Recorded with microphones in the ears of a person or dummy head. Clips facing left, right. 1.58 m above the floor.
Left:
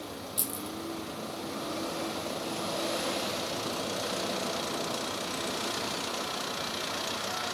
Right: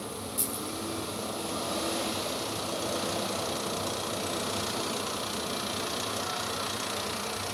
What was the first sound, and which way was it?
Keys jangling, 10° left (ahead or behind).